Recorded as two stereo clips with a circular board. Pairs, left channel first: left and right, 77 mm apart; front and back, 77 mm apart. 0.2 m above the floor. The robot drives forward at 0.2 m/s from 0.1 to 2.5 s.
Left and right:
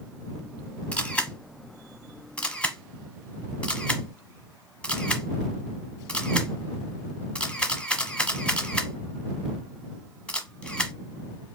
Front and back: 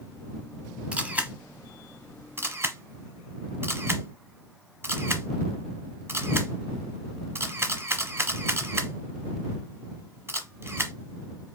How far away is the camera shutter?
About 0.9 m.